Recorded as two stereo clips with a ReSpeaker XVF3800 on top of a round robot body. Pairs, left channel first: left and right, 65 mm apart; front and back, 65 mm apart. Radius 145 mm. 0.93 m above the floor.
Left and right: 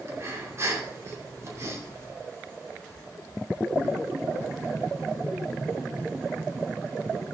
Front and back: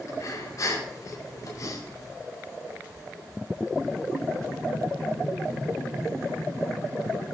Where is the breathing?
40° right, 2.5 m.